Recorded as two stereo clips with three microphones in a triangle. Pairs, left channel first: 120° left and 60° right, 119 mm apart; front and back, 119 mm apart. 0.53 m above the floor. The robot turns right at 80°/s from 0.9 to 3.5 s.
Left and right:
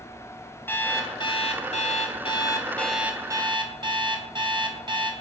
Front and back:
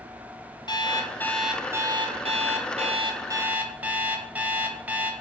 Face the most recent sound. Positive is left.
turn(degrees=-105)